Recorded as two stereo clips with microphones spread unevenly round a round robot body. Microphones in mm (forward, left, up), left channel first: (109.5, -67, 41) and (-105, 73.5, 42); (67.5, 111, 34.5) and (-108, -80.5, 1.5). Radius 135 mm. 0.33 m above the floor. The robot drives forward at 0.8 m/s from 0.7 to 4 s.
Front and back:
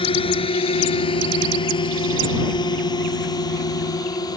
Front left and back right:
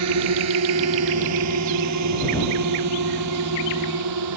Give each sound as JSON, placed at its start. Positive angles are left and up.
{"t": 0.0, "sound": "a drone", "azimuth_deg": -105}